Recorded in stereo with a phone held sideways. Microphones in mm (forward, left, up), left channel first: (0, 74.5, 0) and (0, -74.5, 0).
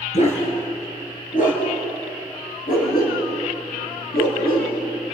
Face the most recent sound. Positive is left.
turn(degrees=80)